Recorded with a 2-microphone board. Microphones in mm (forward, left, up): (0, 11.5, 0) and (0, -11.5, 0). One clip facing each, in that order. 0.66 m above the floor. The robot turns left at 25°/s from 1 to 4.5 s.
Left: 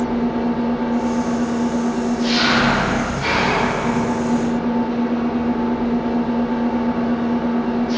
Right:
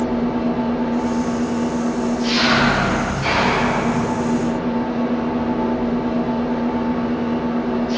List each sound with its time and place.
0.0 s an engine running: 135° left, 1.8 m; by 8.0 s 45° left, 1.8 m